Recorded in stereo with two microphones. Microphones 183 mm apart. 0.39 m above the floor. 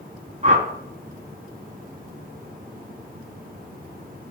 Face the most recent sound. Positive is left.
turn(degrees=-40)  # may be behind; listen again after turning